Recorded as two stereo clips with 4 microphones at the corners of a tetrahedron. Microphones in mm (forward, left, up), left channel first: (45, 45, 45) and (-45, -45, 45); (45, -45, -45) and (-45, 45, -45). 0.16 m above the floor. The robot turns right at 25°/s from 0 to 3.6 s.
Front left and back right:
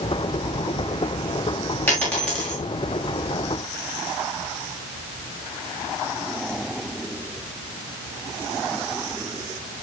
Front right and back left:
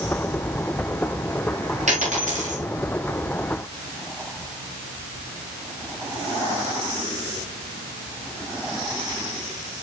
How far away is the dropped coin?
About 9 m.